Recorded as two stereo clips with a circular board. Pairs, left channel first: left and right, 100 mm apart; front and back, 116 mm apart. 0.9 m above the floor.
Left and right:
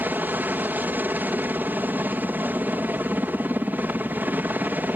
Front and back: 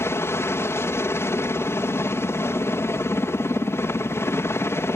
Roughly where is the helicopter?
Ahead right.